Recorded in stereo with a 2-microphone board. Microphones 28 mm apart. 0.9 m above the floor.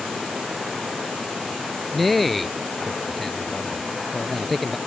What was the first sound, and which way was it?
A man speaking, 5° left (ahead or behind).